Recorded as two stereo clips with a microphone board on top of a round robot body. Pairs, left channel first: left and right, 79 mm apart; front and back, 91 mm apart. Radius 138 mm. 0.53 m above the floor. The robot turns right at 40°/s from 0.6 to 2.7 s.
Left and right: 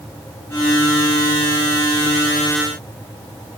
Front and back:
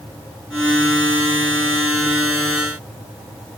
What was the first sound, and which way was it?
Only background noise.